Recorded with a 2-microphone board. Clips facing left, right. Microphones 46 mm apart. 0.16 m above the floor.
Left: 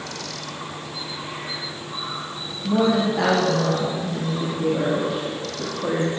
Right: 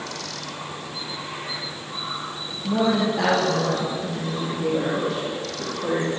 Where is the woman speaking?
5° left (ahead or behind), 7 m.